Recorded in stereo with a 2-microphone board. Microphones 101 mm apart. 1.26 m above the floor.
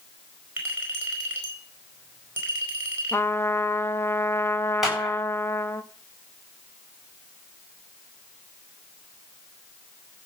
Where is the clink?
20° right (ahead or behind), 4.5 m.